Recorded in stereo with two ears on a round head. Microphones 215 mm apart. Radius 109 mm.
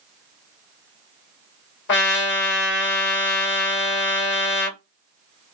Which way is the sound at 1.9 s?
45° left (ahead or behind).